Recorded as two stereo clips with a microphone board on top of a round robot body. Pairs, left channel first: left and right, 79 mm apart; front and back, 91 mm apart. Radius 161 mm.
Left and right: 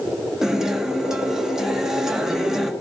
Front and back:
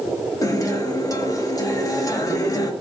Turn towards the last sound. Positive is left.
turn(degrees=-10)